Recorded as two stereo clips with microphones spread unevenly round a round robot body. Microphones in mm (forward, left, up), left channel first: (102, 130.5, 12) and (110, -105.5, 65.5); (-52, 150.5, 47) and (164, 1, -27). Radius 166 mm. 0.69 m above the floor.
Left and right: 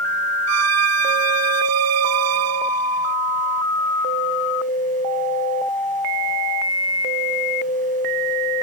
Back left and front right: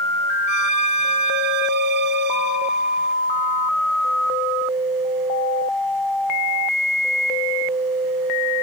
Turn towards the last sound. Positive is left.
turn(degrees=-100)